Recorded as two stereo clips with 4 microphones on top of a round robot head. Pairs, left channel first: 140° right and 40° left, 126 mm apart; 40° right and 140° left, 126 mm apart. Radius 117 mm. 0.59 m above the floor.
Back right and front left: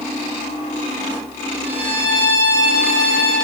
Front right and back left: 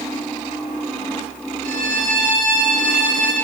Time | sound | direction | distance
1.6 | a violin | 120° left | 1.5 m